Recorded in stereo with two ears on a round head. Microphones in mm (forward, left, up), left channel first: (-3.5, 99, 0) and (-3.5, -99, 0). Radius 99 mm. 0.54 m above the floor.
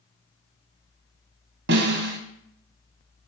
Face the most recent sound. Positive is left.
turn(degrees=-55)  # may be behind; listen again after turning